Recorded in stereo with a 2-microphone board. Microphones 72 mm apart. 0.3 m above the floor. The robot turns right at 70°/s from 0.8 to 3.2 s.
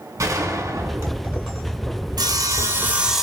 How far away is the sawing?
About 1.2 m.